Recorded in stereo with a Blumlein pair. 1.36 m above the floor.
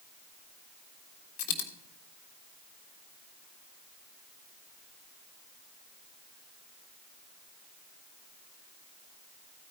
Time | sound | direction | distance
1.4 | a dropped coin | 55° left | 2 m